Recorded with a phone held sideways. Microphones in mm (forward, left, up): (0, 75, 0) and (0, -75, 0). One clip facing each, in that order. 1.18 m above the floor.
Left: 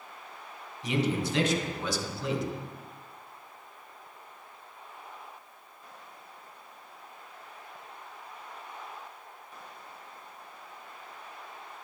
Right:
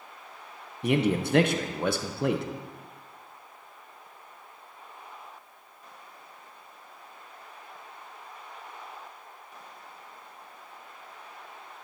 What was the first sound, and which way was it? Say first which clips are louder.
A man speaking: right 4 dB; 55° right (ahead or behind).